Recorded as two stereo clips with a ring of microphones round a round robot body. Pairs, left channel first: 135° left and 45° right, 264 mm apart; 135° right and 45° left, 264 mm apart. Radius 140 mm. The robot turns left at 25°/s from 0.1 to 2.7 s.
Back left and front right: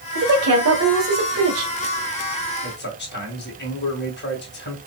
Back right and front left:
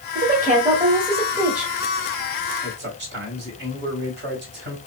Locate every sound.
0.1 s a woman speaking: 5° right, 1.5 m; by 1.7 s 45° right, 1.5 m
2.6 s a man speaking: 90° left, 2.5 m